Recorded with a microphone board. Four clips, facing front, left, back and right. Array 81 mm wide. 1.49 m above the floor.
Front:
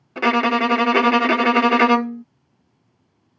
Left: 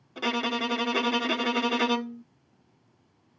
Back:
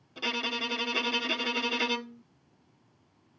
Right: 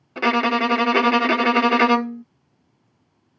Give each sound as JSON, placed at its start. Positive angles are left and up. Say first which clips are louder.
{"t": 0.2, "sound": "a violin", "louder": "right 10 dB, front 17 dB", "azimuth_deg": -35}